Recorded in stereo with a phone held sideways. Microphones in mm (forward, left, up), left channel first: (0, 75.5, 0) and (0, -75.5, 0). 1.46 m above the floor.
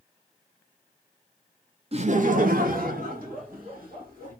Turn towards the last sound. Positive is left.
turn(degrees=-75)  # may be behind; listen again after turning